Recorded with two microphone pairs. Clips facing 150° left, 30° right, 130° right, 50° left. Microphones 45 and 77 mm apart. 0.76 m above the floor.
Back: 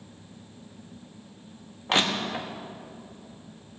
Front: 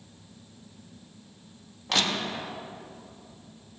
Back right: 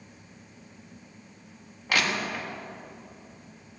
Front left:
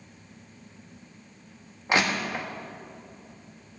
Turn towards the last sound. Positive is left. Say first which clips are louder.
# back 2 dB, front left 2 dB
turn(degrees=110)